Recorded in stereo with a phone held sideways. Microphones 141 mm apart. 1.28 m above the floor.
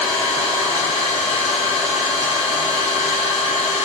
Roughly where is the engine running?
Right.